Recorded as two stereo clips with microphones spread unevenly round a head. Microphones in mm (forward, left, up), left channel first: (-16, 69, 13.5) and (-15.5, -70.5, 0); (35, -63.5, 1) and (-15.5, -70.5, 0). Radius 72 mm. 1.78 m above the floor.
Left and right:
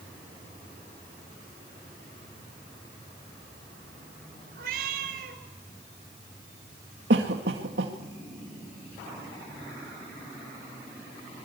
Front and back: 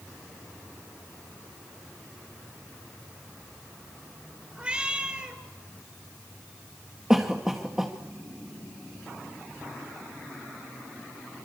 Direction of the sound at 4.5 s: 105° right.